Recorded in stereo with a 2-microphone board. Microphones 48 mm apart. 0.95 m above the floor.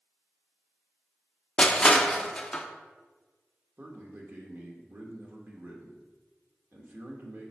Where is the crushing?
15° left (ahead or behind), 0.5 m.